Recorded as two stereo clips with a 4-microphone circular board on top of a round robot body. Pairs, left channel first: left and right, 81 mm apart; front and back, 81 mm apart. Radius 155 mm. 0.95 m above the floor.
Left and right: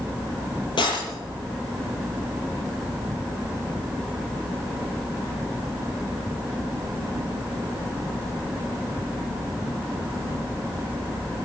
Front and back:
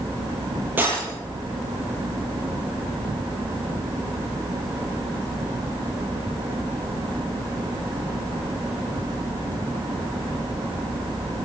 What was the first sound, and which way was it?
Breaking glass, 115° left.